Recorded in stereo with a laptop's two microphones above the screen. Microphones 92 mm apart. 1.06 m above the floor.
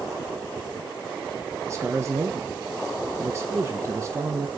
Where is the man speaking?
35° right (ahead or behind), 0.7 m.